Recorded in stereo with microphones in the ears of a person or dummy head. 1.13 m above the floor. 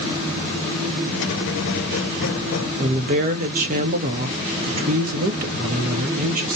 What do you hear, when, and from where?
1.1 s a squeak: 65° left (ahead or behind), 0.7 m
2.8 s a woman speaking: 45° right (ahead or behind), 0.7 m